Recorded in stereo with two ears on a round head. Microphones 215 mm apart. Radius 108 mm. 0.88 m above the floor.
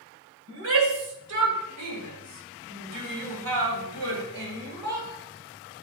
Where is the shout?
60° right (ahead or behind), 4.5 m; by 5.1 s 40° right (ahead or behind), 4 m.